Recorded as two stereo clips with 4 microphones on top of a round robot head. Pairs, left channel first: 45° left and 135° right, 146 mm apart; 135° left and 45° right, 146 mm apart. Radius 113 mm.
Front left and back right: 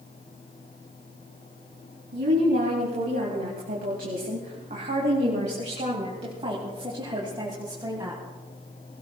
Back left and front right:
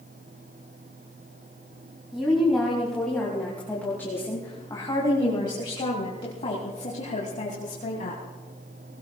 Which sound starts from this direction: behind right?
A woman speaking, at 2.1 s.